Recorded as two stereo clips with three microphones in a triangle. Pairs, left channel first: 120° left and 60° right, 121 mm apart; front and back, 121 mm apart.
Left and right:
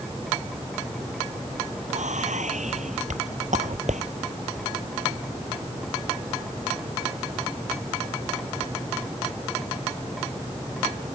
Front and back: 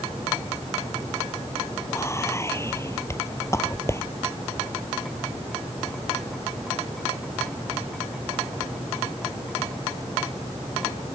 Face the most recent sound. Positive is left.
turn(degrees=-65)